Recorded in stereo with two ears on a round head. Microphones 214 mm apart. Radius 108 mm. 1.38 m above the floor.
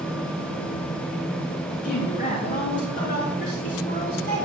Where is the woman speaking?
35° left (ahead or behind), 3 m.